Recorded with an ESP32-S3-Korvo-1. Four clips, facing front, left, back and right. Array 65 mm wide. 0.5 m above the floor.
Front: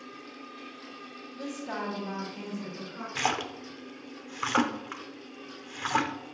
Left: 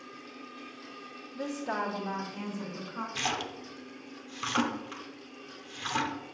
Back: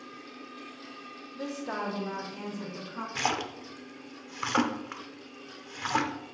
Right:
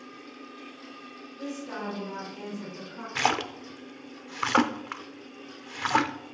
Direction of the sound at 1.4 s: 120° left.